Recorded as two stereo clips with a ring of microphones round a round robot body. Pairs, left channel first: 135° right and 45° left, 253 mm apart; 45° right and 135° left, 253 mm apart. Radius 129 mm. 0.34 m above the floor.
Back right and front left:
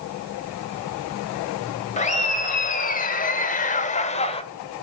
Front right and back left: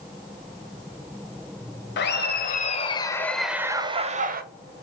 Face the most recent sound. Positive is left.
turn(degrees=170)